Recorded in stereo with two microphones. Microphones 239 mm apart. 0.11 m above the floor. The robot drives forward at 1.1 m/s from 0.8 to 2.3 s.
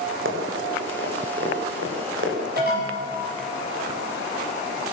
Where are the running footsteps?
55° right (ahead or behind), 5 m; by 2.4 s 50° right (ahead or behind), 6 m.